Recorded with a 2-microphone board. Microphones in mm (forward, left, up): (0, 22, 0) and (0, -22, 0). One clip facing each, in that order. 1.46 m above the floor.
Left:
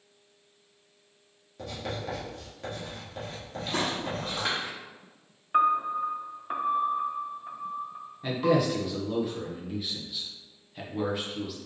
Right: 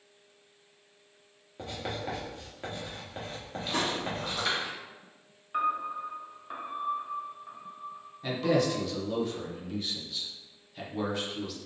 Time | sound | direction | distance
1.6 | writing | 15° right (ahead or behind) | 1.6 m
3.7 | footsteps | 5° left (ahead or behind) | 1.8 m
5.5 | a piano | 25° left (ahead or behind) | 0.5 m
8.2 | a man speaking | 10° left (ahead or behind) | 1.1 m